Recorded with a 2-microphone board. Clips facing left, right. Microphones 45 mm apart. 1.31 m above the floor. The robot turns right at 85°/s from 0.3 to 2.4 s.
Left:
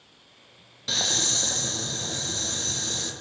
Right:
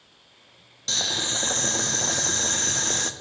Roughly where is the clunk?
No clunk in this recording.